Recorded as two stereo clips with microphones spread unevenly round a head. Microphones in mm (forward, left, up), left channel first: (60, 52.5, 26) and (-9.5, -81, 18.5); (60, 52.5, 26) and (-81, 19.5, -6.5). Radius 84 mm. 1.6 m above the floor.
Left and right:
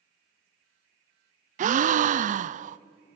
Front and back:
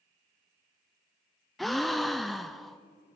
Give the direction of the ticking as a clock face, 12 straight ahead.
I don't hear ticking.